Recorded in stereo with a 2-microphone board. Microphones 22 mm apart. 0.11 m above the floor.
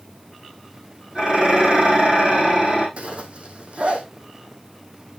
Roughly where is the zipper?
Right.